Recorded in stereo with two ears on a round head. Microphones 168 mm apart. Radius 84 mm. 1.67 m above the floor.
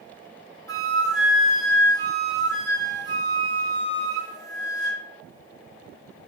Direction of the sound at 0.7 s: 20° left (ahead or behind).